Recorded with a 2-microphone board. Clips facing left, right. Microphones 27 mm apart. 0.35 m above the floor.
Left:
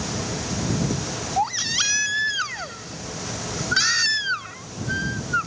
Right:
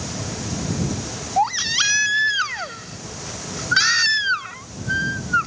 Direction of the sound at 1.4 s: 15° right (ahead or behind).